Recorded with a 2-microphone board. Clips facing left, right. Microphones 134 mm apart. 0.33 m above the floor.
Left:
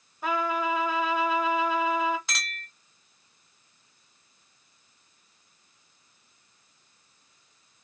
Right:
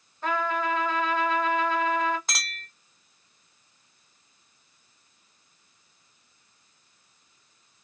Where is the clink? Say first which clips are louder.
Even; 45° right (ahead or behind), 1.2 m.